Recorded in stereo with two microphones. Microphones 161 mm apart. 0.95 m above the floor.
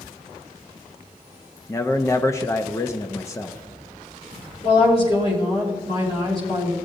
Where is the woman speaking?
45° left (ahead or behind), 3.5 m.